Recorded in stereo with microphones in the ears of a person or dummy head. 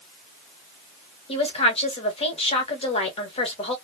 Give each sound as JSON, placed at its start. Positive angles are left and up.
{"t": 1.3, "sound": "a woman speaking", "side_deg": 30, "distance_m": 1.2}